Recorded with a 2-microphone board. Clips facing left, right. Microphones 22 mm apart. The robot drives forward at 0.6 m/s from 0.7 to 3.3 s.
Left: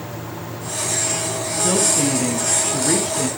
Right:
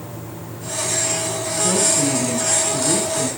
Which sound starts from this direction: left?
A woman speaking, at 1.6 s.